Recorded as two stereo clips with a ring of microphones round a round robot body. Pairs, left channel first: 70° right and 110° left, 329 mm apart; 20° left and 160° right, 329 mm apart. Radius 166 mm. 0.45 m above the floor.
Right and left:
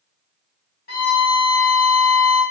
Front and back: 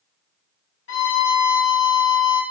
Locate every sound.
0.9 s a violin: 15° right, 0.8 m